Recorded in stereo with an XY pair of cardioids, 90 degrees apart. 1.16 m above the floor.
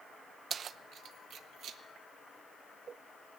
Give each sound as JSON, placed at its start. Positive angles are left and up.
{"t": 0.5, "sound": "keys jangling", "azimuth_deg": -50, "distance_m": 0.5}